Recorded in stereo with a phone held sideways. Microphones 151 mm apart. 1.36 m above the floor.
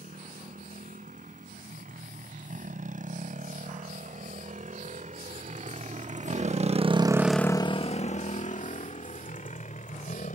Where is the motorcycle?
65° right (ahead or behind); by 10.4 s 60° left (ahead or behind).